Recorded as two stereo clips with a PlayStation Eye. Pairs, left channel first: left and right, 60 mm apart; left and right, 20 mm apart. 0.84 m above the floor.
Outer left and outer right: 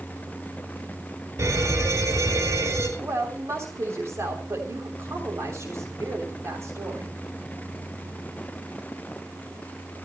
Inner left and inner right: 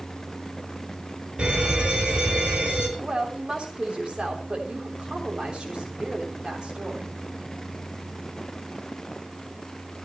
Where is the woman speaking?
55° right (ahead or behind), 3 m.